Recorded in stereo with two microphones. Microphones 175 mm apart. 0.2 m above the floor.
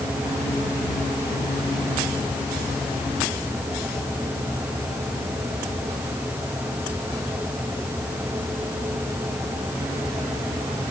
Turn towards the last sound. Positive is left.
No sound to turn to.